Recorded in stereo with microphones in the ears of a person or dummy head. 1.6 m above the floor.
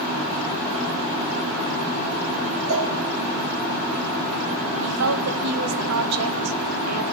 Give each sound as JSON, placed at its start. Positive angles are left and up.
{"t": 2.7, "sound": "a cowbell", "side_deg": -65, "distance_m": 1.4}
{"t": 4.8, "sound": "a woman speaking", "side_deg": -80, "distance_m": 1.0}